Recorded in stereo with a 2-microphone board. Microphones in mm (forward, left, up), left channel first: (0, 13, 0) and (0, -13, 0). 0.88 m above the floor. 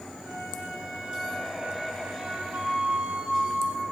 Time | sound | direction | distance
0.2 | a flute | 80° right | 6.5 m